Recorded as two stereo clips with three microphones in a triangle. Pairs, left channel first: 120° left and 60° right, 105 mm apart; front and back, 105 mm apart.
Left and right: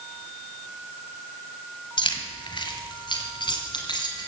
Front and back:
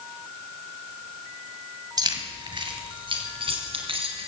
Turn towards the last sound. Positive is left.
turn(degrees=160)